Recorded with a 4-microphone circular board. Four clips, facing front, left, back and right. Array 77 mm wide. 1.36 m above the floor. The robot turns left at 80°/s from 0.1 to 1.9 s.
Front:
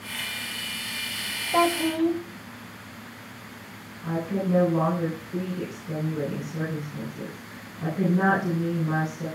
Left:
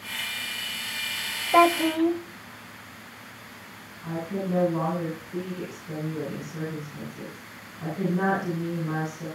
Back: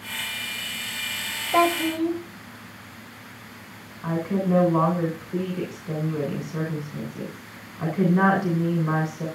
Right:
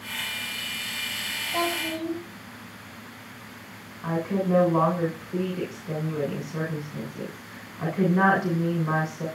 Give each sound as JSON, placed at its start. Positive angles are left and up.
{"t": 1.5, "sound": "a child speaking", "azimuth_deg": 105, "distance_m": 1.5}
{"t": 4.0, "sound": "a woman speaking", "azimuth_deg": -135, "distance_m": 7.0}